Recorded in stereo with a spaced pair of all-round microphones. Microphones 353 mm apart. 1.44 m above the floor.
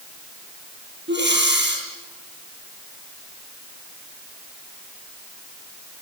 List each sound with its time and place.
1.1 s breathing: 30° right (ahead or behind), 9 m